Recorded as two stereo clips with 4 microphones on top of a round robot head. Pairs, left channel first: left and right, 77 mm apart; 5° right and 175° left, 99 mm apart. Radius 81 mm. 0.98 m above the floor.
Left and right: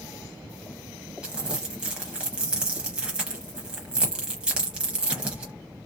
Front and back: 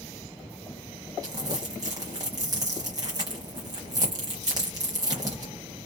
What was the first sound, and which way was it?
Crumpling, 155° right.